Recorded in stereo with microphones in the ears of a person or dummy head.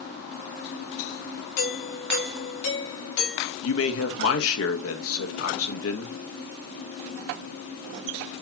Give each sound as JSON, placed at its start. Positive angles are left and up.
{"t": 1.6, "sound": "a doorbell", "side_deg": 70, "distance_m": 4.0}
{"t": 3.6, "sound": "a man speaking", "side_deg": 80, "distance_m": 1.8}